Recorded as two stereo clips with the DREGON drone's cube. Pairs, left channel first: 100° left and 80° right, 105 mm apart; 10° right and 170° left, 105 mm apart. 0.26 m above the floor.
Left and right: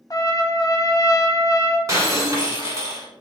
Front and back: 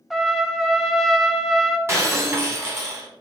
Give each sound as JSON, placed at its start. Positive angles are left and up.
{"t": 0.1, "sound": "a trumpet", "azimuth_deg": 80, "distance_m": 0.6}
{"t": 1.9, "sound": "breaking glass", "azimuth_deg": -130, "distance_m": 1.3}